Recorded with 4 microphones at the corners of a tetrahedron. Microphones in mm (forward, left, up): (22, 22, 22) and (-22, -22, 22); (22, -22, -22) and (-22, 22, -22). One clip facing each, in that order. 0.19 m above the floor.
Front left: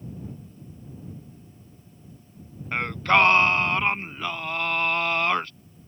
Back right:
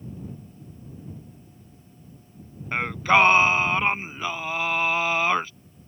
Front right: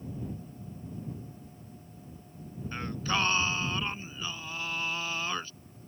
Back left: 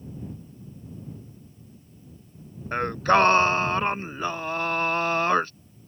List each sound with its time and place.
2.7 s singing: 140° left